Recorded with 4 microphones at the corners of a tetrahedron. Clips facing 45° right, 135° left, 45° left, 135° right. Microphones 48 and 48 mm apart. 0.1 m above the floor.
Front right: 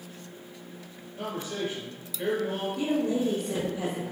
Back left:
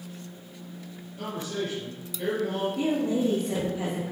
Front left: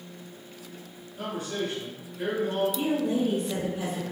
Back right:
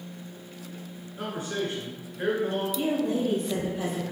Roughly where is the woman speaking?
Behind left.